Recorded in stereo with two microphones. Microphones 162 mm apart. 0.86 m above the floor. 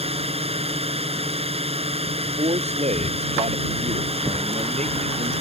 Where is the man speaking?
45° right (ahead or behind).